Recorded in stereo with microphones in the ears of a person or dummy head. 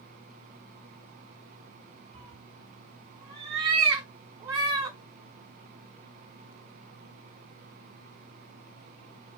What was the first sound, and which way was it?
A cat meowing, 25° right (ahead or behind).